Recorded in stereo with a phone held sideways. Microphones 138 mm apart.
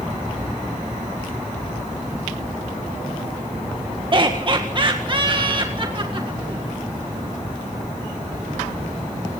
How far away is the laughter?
About 1.7 m.